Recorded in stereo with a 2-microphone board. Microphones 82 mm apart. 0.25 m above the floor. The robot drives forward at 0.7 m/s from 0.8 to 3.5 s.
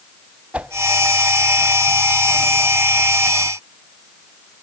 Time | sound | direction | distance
0.5 | a whoosh | 20° right (ahead or behind) | 0.8 m